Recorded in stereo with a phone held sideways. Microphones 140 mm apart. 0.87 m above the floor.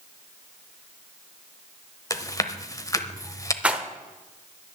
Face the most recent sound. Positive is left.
turn(degrees=-10)  # may be behind; listen again after turning